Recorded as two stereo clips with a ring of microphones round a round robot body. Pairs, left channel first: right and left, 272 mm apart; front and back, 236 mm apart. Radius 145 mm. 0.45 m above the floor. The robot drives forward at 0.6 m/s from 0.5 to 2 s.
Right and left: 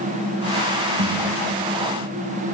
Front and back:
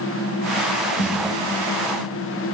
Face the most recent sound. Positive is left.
turn(degrees=75)